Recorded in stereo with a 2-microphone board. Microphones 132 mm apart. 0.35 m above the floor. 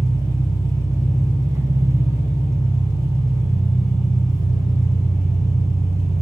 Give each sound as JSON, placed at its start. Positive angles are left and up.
{"t": 0.0, "sound": "an engine running", "side_deg": -25, "distance_m": 1.7}